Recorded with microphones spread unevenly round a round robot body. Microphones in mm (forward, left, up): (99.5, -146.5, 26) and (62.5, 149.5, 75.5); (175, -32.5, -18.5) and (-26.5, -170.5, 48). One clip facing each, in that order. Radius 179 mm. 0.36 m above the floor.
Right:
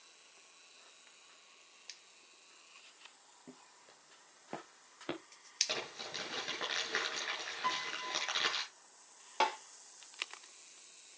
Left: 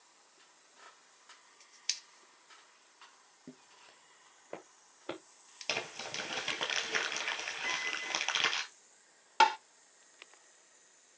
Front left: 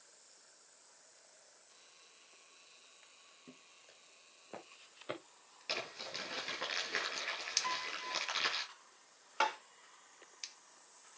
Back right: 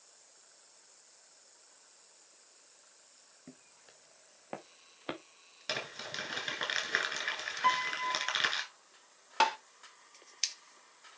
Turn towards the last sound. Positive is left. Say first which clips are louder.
# left 5 dB, back right 5 dB
turn(degrees=165)